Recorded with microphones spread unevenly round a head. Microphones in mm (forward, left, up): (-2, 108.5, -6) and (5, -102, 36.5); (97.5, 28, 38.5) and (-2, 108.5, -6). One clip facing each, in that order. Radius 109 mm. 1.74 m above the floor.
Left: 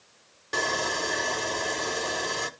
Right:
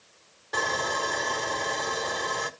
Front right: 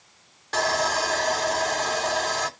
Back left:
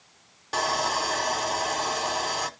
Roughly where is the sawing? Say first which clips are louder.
Left 1 dB, front right 2 dB; ahead left.